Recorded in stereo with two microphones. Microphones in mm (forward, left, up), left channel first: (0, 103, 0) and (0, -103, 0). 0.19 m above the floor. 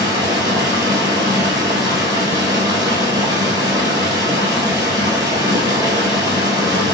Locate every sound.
0.0 s running water: 15° right (ahead or behind), 1.2 m